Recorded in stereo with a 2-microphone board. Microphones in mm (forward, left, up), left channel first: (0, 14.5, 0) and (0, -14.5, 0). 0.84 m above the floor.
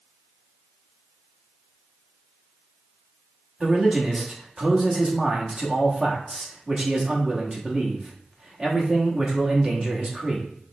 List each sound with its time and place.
3.6 s a man speaking: 25° right (ahead or behind), 1.2 m